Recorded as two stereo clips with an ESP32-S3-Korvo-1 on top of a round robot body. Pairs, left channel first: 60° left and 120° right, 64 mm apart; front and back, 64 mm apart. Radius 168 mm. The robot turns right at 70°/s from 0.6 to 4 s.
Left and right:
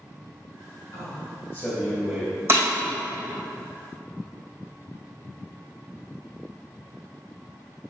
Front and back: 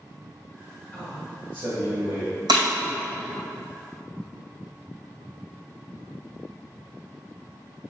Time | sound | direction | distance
0.9 | a man speaking | 75° left | 2 m
2.5 | breaking glass | 175° right | 2.5 m